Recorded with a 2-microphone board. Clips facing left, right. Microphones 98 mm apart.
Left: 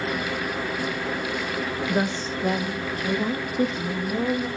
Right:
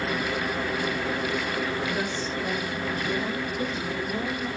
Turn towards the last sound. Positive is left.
turn(degrees=60)  # may be behind; listen again after turning